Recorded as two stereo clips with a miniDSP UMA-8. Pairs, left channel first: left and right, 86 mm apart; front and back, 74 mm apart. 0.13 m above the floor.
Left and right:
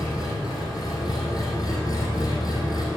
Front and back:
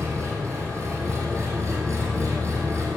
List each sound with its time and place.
0.0 s an engine running: 130° left, 2.5 m